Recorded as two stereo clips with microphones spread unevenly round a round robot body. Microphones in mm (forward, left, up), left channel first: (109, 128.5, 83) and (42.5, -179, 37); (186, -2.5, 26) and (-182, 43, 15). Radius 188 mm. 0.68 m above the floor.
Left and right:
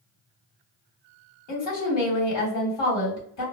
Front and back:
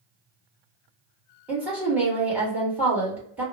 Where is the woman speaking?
90° left, 1.5 m.